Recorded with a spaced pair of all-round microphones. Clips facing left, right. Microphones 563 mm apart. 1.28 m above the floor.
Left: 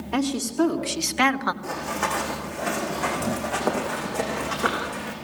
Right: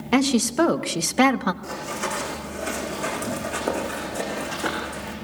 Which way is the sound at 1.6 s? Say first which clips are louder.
Left 1 dB; 70° left (ahead or behind).